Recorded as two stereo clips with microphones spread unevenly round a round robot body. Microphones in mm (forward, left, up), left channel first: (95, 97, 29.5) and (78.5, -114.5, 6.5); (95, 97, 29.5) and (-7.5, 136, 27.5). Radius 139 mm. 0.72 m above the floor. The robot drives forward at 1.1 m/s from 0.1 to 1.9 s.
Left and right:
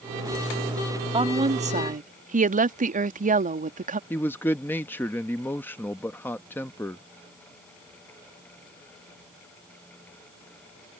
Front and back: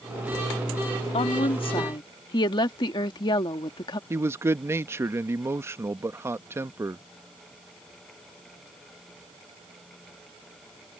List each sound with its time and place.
1.1 s a woman speaking: 35° right; by 4.0 s 65° right
4.1 s a man speaking: 170° left